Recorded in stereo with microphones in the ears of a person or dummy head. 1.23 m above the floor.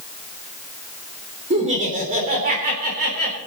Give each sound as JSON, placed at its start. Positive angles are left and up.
{"t": 1.5, "sound": "laughter", "side_deg": -40, "distance_m": 3.5}